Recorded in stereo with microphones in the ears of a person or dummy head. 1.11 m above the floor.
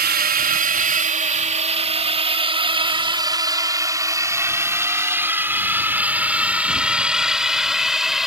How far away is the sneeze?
I don't hear a sneeze.